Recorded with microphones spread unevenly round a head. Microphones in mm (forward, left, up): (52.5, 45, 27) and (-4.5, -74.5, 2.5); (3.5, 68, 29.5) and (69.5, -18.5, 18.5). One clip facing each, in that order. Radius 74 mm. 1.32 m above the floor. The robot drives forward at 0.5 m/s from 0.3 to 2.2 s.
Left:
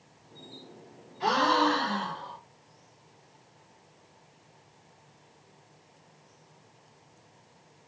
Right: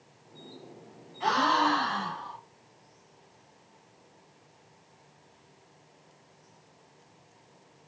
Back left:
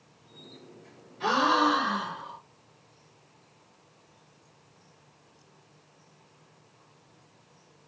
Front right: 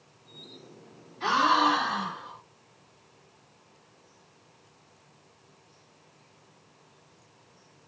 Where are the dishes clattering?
No dishes clattering in this recording.